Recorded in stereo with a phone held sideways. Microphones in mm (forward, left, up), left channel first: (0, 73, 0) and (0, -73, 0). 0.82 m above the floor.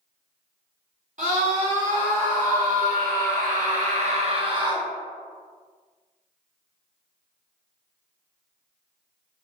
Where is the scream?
55° right (ahead or behind), 1.9 m; by 4.9 s 30° right (ahead or behind), 1.2 m.